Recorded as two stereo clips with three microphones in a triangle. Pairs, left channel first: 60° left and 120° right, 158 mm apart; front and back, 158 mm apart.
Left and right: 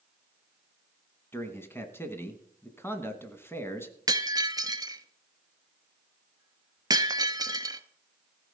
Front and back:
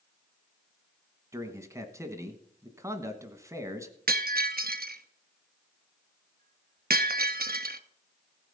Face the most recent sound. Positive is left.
turn(degrees=175)